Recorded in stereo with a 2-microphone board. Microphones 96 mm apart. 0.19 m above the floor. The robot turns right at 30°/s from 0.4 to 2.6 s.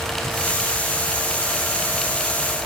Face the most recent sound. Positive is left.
No sound to turn to.